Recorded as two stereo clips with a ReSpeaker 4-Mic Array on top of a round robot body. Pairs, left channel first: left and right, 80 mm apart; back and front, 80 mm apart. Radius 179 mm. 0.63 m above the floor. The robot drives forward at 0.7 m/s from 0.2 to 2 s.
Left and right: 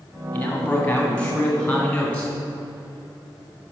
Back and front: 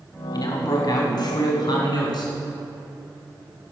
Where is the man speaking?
160° left, 2 m; by 2.3 s 165° left, 3 m.